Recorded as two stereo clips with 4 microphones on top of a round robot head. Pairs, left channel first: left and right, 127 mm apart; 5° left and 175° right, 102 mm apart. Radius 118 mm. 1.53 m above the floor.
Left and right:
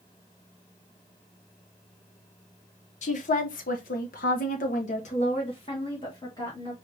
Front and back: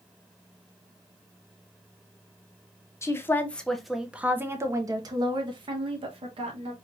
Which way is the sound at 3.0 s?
65° left.